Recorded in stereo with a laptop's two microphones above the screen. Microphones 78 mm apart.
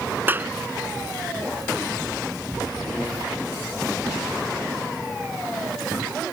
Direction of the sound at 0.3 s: 25° right (ahead or behind).